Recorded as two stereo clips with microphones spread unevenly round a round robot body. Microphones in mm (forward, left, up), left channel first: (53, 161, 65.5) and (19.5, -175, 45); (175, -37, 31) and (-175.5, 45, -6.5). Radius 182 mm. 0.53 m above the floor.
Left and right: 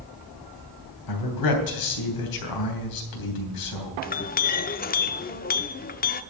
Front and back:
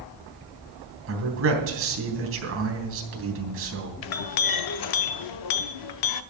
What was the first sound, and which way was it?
A man speaking, 115° left.